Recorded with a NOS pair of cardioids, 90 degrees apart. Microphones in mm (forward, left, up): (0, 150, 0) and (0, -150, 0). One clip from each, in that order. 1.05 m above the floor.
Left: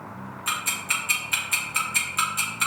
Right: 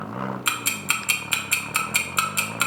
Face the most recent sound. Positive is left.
turn(degrees=-45)